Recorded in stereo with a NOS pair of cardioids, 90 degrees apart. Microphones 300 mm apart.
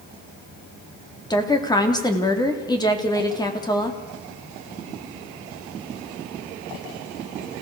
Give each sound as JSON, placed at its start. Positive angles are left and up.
{"t": 1.3, "sound": "a woman speaking", "azimuth_deg": 15, "distance_m": 4.0}